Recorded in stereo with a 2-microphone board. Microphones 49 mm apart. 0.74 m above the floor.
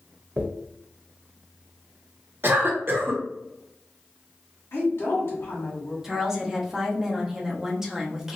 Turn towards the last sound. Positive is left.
turn(degrees=-10)  # may be behind; listen again after turning